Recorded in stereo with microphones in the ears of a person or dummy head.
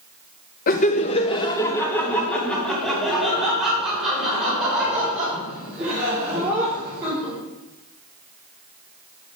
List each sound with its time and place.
0.7 s laughter: 50° left (ahead or behind), 0.8 m; by 7.3 s 15° right (ahead or behind), 5 m